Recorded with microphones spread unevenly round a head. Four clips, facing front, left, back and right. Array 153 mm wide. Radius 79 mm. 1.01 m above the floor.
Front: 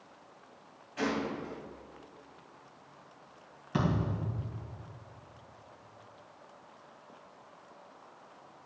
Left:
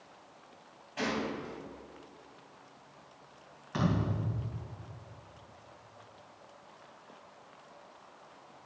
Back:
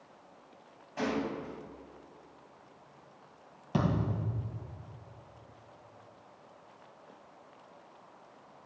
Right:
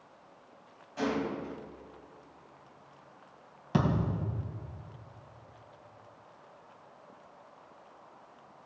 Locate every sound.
1.0 s a gunshot: 175° left, 3.5 m
3.7 s a thud: 120° right, 3 m